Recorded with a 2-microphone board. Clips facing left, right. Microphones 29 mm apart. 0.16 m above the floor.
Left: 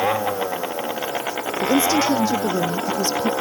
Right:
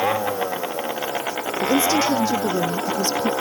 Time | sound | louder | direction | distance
1.6 | a woman speaking | left 1 dB | 20° left (ahead or behind) | ?